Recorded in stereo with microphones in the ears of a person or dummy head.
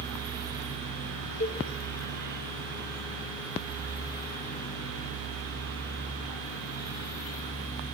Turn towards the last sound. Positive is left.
turn(degrees=40)  # may be behind; listen again after turning